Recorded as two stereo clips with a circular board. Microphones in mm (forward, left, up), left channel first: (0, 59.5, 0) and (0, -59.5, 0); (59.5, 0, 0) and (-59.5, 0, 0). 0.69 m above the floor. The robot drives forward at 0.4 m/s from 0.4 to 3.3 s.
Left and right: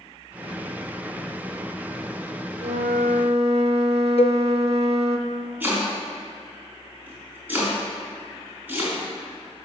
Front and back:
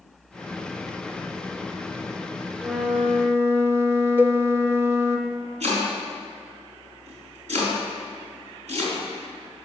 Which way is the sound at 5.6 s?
165° right.